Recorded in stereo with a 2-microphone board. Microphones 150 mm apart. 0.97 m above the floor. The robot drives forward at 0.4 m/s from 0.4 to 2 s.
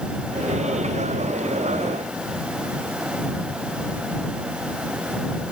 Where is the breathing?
I don't hear breathing.